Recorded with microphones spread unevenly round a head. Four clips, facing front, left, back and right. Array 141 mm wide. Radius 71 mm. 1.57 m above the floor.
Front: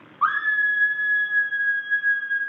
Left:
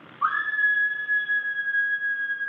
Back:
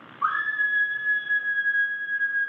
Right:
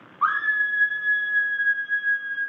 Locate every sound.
0.2 s a scream: 25° right, 1.2 m; by 2.4 s straight ahead, 3 m